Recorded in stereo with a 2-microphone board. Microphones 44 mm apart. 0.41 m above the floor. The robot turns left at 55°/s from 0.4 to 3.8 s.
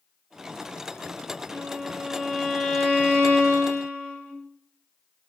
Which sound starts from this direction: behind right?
A violin, at 1.5 s.